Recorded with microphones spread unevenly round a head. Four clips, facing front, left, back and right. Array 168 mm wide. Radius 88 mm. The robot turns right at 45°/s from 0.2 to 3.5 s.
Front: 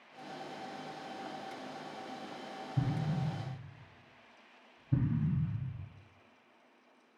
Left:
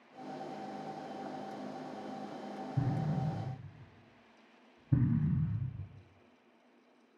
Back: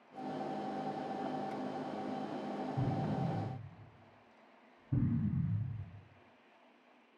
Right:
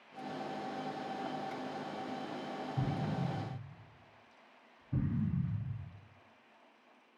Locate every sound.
2.8 s an explosion: 25° left, 0.9 m; by 5.9 s 60° left, 0.9 m